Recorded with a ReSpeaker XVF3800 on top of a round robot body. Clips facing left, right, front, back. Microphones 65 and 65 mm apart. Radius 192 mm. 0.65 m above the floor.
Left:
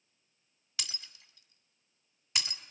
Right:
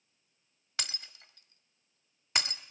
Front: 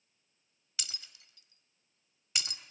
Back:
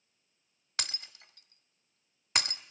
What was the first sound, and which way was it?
Breaking glass, 135° right.